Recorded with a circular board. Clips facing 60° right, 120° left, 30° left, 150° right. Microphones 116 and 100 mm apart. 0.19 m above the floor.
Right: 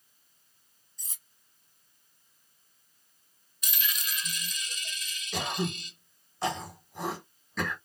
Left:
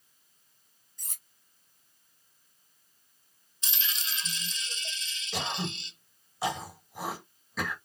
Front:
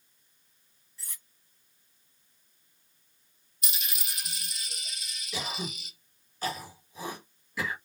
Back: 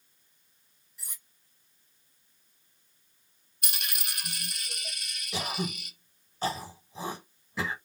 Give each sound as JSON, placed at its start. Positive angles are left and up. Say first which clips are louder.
{"t": 1.0, "sound": "cutlery clinking", "louder": "left 2 dB, front 1 dB", "azimuth_deg": 135, "distance_m": 1.3}
{"t": 3.6, "sound": "a dropped coin", "louder": "right 2 dB, back 2 dB", "azimuth_deg": -175, "distance_m": 0.5}
{"t": 5.3, "sound": "throat clearing", "louder": "right 2 dB, back 3 dB", "azimuth_deg": -160, "distance_m": 1.4}